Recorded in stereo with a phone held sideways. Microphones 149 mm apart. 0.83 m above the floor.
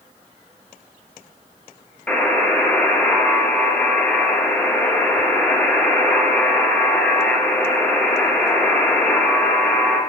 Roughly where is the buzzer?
Centre.